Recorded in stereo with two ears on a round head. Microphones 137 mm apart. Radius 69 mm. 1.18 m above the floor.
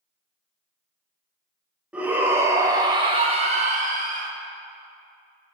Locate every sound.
1.9 s a shout: 10° right (ahead or behind), 1.9 m; by 4.3 s 60° right (ahead or behind), 1.8 m